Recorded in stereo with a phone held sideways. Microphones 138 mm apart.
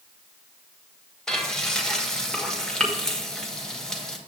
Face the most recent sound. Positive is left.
turn(degrees=5)  # may be behind; listen again after turning